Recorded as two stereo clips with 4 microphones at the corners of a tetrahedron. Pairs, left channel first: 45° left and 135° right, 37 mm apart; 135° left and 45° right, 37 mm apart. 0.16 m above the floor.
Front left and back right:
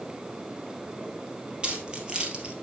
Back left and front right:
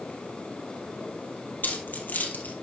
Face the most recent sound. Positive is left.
turn(degrees=160)